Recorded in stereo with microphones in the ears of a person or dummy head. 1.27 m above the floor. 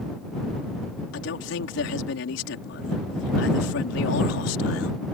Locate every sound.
1.1 s a man speaking: 75° left (ahead or behind)